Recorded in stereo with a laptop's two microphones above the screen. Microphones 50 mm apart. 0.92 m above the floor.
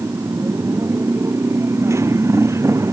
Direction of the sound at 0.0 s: 70° right (ahead or behind).